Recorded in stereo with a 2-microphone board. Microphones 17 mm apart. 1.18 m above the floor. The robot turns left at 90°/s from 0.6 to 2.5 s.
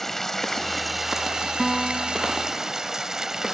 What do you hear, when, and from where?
0.0 s running water: 20° left; by 3.5 s 150° right
1.6 s a piano: 170° left; by 2.3 s 105° left